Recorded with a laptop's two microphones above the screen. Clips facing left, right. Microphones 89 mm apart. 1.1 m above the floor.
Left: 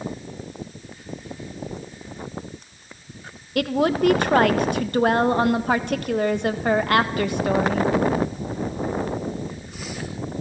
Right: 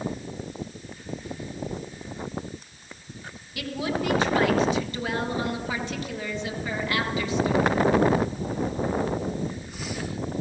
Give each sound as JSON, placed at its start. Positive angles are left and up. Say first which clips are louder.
{"t": 3.5, "sound": "a woman speaking", "louder": "left 9 dB", "side_deg": 60, "distance_m": 1.5}